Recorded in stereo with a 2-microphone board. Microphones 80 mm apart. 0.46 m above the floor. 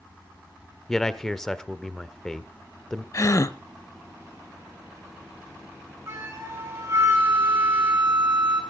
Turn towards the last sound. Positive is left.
turn(degrees=-35)  # may be behind; listen again after turning